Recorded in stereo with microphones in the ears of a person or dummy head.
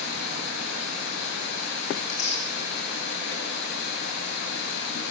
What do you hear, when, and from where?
0.0 s running water: 85° left, 7 m
2.0 s tearing paper: 40° left (ahead or behind), 3 m